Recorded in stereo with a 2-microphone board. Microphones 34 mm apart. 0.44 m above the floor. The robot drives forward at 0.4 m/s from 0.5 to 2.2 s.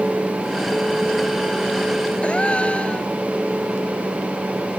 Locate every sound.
2.2 s a gasp: 35° left (ahead or behind)